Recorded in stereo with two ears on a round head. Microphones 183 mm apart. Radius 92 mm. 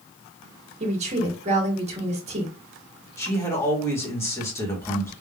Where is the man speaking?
15° left (ahead or behind), 1.5 m.